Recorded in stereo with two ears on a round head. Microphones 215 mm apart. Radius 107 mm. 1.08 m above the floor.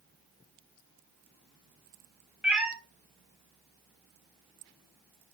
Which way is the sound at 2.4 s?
5° right (ahead or behind).